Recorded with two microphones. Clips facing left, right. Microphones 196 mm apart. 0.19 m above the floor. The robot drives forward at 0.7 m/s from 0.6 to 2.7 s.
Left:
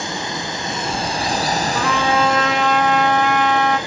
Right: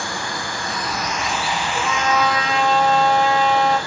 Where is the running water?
20° left (ahead or behind), 0.8 m.